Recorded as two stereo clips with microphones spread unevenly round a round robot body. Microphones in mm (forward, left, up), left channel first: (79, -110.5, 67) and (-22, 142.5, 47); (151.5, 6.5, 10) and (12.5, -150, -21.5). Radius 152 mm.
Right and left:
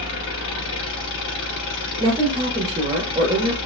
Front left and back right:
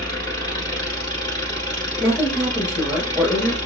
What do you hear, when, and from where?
0.0 s an engine running: 25° right, 1.3 m
2.0 s a woman speaking: 130° left, 1.0 m